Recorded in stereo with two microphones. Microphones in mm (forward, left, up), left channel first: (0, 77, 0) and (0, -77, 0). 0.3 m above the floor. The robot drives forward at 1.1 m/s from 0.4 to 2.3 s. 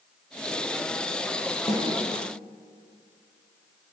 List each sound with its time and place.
1.7 s a snare drum: 35° left (ahead or behind), 7.5 m